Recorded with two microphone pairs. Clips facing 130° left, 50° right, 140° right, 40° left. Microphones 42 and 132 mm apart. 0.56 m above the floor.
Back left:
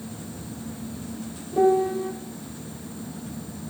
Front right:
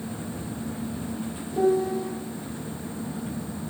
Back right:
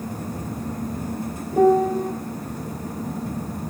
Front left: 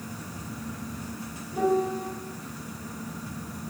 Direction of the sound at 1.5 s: 170° right.